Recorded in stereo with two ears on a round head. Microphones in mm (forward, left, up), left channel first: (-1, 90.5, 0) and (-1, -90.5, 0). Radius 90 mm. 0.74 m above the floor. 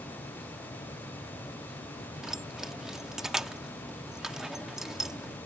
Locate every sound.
2.2 s keys jangling: centre (ahead or behind)